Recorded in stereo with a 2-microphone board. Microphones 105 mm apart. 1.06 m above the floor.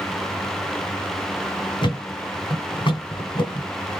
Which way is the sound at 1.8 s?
50° left (ahead or behind).